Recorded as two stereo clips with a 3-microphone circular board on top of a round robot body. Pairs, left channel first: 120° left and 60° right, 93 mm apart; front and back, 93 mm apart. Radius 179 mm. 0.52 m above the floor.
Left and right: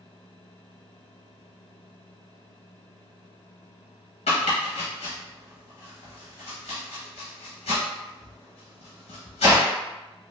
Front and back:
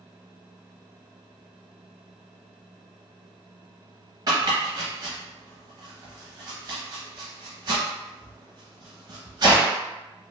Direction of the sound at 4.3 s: 125° left.